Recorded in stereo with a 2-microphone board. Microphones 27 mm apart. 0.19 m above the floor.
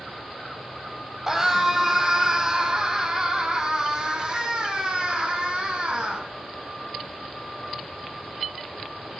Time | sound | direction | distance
1.3 | a scream | 15° right (ahead or behind) | 7.5 m